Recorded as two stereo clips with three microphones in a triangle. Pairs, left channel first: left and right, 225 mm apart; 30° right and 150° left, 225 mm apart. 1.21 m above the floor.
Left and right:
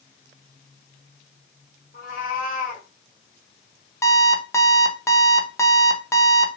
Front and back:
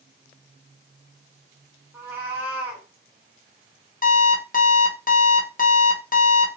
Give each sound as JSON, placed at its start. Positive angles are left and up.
{"t": 1.9, "sound": "a cat meowing", "azimuth_deg": 75, "distance_m": 1.0}
{"t": 4.0, "sound": "an alarm clock", "azimuth_deg": 10, "distance_m": 0.5}